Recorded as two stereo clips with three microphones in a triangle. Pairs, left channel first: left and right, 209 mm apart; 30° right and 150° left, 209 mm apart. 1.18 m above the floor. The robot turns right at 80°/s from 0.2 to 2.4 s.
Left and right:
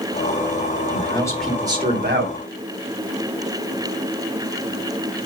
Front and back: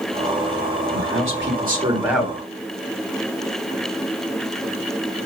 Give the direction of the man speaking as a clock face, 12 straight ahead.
7 o'clock.